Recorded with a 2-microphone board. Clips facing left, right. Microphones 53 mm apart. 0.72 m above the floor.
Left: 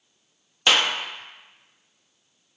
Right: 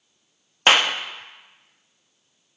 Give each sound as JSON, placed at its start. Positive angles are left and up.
{"t": 0.7, "sound": "a clap", "side_deg": -35, "distance_m": 0.6}